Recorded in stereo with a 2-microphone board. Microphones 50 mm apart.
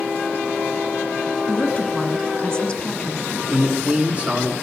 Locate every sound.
1.5 s a woman speaking: 15° left (ahead or behind), 1.4 m
3.5 s a man speaking: 25° right (ahead or behind), 1.8 m